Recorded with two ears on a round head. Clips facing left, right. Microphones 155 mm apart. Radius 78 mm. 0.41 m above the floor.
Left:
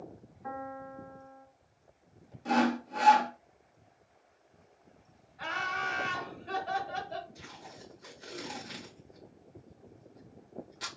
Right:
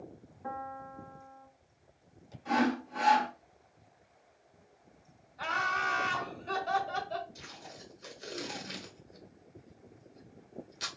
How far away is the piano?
About 0.8 m.